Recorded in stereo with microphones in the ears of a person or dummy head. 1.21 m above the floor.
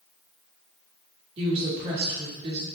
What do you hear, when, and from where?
1.4 s a woman speaking: 35° right (ahead or behind), 1.7 m